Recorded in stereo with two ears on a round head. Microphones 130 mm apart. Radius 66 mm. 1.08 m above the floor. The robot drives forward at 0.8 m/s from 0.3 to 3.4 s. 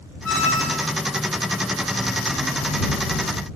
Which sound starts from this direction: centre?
A squeak, at 0.2 s.